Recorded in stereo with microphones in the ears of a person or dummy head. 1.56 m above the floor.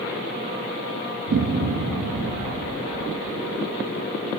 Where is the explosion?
50° right (ahead or behind), 0.6 m.